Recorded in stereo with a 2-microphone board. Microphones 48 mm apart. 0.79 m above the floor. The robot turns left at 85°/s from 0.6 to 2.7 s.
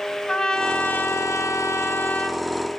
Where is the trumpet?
170° left, 1.5 m; by 2.4 s 15° left, 1.5 m.